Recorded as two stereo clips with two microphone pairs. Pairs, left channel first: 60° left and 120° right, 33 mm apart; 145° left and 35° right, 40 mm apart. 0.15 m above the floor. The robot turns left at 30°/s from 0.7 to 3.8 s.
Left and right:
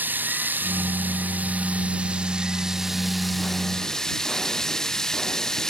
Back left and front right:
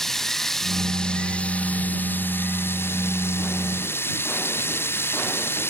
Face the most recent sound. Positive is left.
turn(degrees=135)